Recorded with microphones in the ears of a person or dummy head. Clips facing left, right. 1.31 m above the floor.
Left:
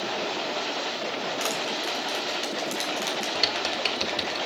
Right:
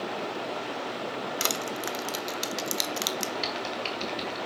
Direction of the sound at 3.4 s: 60° left (ahead or behind).